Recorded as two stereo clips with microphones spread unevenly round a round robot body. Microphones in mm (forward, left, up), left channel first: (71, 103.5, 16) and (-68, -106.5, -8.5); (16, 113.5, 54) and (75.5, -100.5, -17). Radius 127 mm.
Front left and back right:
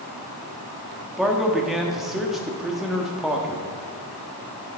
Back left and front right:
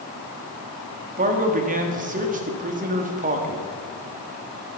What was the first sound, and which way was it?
A man speaking, 35° right.